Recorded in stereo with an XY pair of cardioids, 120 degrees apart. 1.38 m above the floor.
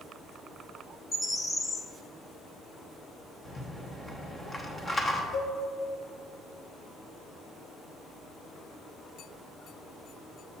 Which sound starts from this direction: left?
A cowbell, at 5.3 s.